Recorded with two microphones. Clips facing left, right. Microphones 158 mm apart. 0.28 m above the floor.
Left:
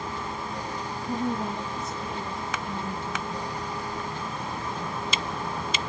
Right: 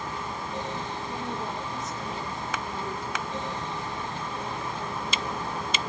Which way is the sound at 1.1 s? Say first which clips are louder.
Left 8 dB; 65° left (ahead or behind).